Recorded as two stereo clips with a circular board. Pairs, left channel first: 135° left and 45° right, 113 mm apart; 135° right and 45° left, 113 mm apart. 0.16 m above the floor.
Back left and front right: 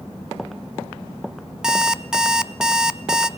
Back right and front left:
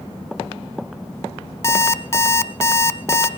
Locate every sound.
1.6 s an alarm clock: 120° right, 0.7 m